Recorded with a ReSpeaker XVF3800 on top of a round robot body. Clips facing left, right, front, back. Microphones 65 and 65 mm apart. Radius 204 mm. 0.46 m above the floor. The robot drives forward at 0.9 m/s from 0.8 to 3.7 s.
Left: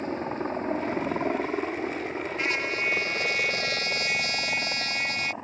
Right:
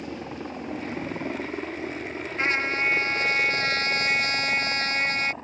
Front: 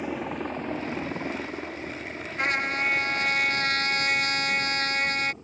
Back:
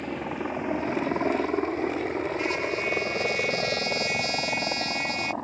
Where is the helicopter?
75° left; by 5.4 s 165° left.